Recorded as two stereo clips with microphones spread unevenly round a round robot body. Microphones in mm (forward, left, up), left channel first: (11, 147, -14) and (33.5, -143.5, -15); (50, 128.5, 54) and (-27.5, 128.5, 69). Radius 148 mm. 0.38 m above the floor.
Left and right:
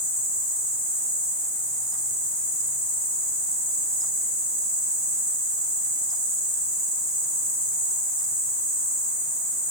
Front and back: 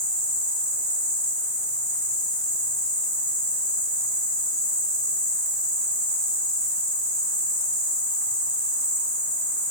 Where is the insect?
55° left, 1.0 m.